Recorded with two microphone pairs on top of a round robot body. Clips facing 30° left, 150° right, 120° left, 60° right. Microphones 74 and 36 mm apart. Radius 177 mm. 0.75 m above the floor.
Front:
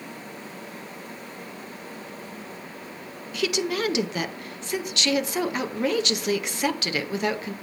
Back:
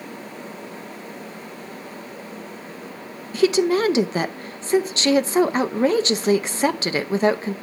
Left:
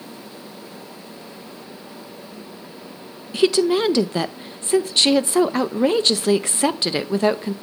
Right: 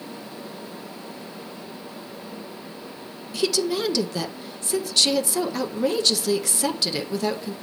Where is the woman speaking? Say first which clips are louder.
Back 9 dB, left 7 dB; 160° left, 0.7 m.